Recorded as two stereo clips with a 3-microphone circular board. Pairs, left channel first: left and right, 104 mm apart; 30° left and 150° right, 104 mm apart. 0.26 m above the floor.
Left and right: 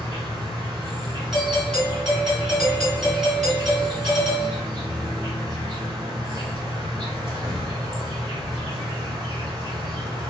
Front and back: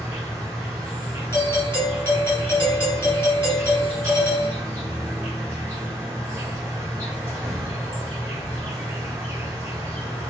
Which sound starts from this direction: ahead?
A doorbell, at 1.3 s.